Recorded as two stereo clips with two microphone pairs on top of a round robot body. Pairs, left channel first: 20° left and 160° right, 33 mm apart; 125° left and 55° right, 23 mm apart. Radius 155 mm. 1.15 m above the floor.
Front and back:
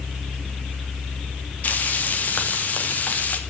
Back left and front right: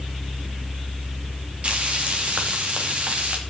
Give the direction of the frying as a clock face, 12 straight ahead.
1 o'clock.